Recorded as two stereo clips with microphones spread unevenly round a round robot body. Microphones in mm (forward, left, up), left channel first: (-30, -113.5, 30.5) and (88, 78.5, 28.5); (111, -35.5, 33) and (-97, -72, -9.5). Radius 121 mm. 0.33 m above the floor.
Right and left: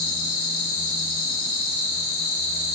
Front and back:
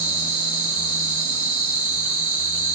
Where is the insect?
85° right, 3.5 m.